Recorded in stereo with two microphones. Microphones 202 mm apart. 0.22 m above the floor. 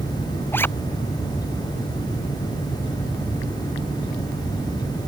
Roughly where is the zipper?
Centre.